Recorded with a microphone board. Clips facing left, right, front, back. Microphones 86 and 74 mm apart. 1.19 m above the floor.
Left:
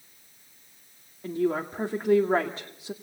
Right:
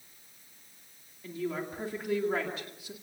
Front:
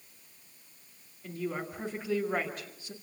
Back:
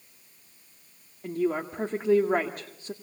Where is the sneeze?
I don't hear a sneeze.